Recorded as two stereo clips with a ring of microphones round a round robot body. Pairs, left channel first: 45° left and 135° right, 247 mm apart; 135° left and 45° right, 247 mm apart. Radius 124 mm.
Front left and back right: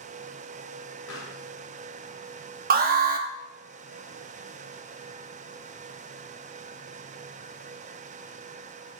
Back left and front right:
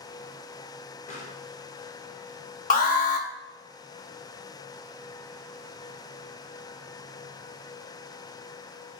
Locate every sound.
1.1 s a pop: 70° left, 2.5 m
2.7 s an alarm: straight behind, 0.8 m